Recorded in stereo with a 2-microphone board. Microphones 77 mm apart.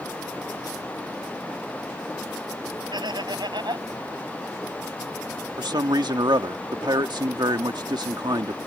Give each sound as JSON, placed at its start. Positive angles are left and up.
{"t": 2.9, "sound": "laughter", "side_deg": -80}
{"t": 5.6, "sound": "a man speaking", "side_deg": -70}